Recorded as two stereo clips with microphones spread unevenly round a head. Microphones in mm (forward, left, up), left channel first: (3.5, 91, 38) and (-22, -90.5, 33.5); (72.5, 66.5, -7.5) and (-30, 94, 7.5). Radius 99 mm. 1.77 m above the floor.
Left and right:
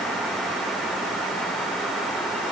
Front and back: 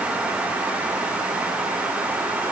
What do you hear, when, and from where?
Only background noise.